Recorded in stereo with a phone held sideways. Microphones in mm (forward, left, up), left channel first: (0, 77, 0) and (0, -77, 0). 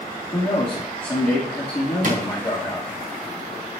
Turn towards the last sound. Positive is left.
turn(degrees=-55)  # may be behind; listen again after turning